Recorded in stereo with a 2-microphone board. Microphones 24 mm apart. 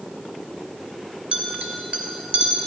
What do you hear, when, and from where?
1.3 s a clink: 55° right (ahead or behind), 2 m